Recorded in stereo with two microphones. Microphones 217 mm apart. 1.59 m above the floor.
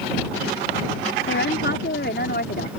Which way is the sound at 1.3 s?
60° left (ahead or behind).